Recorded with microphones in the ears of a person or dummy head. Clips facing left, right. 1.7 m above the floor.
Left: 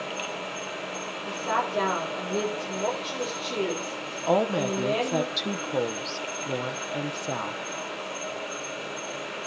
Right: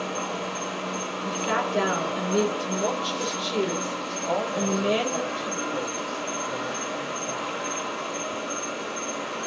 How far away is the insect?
About 3 m.